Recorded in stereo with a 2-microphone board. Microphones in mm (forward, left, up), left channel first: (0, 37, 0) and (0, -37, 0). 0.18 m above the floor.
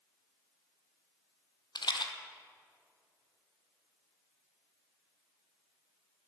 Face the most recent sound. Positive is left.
turn(degrees=85)